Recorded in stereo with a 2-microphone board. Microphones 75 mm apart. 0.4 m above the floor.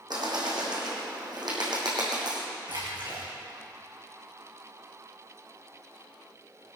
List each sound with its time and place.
0.1 s a bird: 65° right (ahead or behind), 3.5 m
2.7 s a splash: 85° right, 5 m